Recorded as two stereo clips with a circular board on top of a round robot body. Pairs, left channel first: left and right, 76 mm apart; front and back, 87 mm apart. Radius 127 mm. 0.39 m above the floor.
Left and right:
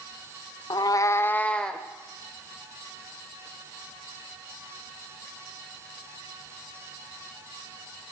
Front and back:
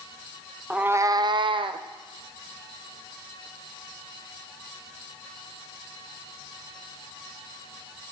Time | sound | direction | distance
0.7 | a cat meowing | 100° left | 0.6 m